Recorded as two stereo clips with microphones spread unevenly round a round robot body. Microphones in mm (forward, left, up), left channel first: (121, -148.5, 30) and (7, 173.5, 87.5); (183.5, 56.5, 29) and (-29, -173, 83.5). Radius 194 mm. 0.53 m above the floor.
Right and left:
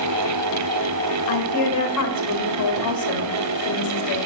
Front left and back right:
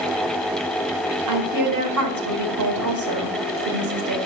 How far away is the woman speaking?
About 1.9 m.